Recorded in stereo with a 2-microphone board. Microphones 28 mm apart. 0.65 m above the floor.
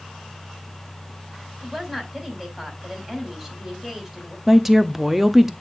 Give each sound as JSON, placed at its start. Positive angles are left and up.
{"t": 1.6, "sound": "a woman speaking", "side_deg": -15, "distance_m": 2.5}
{"t": 4.5, "sound": "a woman speaking", "side_deg": -10, "distance_m": 0.6}